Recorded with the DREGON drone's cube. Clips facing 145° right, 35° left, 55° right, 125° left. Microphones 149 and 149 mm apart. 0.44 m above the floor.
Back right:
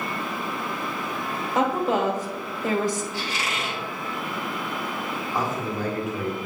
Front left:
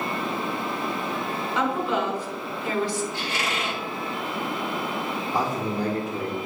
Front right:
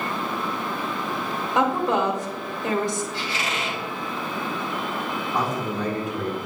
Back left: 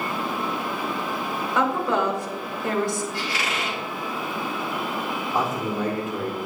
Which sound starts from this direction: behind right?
A woman speaking, at 1.6 s.